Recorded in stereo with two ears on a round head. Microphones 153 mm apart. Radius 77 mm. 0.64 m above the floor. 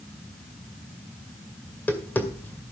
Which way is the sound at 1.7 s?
10° left (ahead or behind).